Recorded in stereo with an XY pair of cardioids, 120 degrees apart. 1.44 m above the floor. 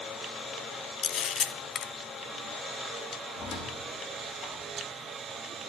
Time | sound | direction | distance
1.0 | a camera shutter | 50° left | 0.8 m
3.3 | a squeak | 60° left | 3 m